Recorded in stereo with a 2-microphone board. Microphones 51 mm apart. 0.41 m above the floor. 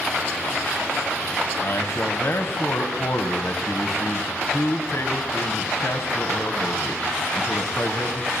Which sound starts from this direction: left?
A man speaking, at 1.6 s.